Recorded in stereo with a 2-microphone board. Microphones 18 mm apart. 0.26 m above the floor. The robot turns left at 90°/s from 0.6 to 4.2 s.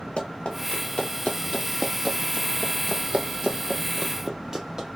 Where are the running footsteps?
75° left (ahead or behind), 2 m; by 4.9 s 40° right (ahead or behind), 2.0 m.